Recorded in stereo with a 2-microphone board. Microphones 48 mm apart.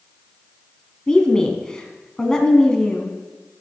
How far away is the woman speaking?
About 1.0 m.